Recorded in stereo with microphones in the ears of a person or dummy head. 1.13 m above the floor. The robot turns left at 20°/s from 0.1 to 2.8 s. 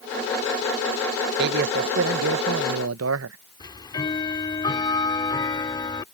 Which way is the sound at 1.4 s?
50° right (ahead or behind).